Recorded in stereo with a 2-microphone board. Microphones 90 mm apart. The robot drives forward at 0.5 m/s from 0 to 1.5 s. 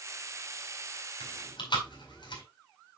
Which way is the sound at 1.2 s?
60° left (ahead or behind).